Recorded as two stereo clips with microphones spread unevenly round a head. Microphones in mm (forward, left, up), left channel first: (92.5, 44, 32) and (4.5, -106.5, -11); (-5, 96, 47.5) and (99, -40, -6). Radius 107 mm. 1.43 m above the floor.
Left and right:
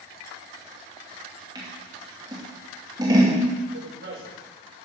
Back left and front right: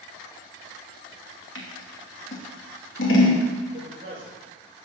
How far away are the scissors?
About 3 m.